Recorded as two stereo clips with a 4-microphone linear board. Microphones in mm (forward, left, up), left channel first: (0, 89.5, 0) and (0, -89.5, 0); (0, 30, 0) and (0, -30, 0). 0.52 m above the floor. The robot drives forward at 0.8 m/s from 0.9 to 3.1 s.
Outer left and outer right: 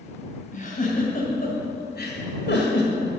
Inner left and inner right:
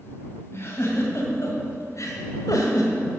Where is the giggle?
45° left (ahead or behind), 2.5 m; by 2.9 s 70° left (ahead or behind), 1.8 m.